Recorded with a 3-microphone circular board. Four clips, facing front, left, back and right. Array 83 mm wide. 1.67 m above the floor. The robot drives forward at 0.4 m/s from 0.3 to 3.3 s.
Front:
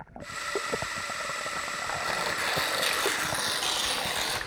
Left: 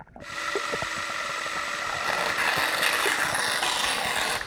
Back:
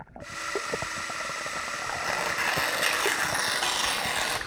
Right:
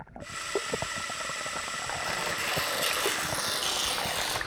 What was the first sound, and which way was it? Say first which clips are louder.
Tearing paper: left 8 dB, back 3 dB; 110° left.